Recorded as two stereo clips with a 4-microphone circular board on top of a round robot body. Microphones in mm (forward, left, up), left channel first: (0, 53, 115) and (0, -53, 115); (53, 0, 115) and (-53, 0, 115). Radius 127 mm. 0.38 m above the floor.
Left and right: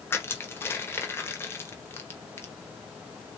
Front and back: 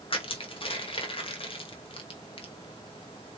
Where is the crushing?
25° left, 1.2 m.